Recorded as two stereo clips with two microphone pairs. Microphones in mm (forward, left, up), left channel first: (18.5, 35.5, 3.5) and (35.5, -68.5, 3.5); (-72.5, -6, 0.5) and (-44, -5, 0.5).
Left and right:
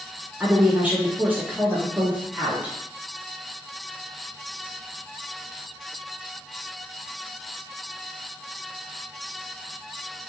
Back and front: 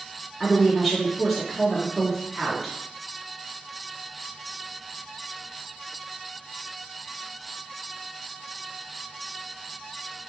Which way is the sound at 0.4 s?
110° right.